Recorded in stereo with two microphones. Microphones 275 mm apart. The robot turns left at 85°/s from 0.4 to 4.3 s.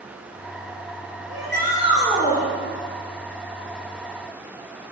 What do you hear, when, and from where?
1.3 s a shout: 105° right, 2.5 m; by 2.5 s 155° left, 2.5 m